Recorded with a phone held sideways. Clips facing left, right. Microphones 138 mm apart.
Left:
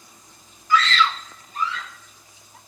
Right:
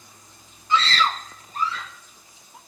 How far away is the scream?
About 0.6 m.